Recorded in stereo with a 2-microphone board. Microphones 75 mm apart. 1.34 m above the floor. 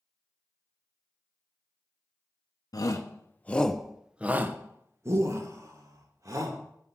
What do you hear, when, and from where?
2.7 s a shout: 55° left (ahead or behind), 0.8 m; by 6.6 s 55° right (ahead or behind), 2 m